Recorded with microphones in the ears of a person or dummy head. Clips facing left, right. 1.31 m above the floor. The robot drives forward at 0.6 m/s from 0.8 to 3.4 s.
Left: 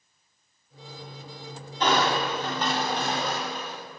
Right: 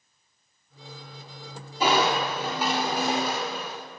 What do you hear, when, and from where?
1.8 s crushing: 10° right (ahead or behind), 3.5 m; by 3.8 s 5° right (ahead or behind), 4.5 m